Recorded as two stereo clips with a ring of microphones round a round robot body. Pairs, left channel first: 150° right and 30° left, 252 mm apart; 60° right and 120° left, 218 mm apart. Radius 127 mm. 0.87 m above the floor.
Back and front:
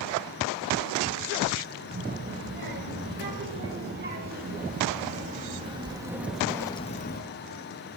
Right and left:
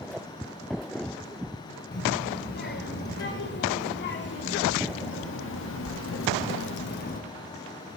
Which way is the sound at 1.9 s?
15° right.